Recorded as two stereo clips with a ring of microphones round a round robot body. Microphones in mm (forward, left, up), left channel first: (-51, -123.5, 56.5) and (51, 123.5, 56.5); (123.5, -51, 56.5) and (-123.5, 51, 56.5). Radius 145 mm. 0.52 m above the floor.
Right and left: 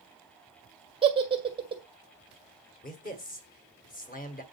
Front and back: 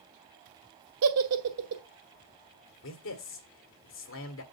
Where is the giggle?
140° left, 1.6 m.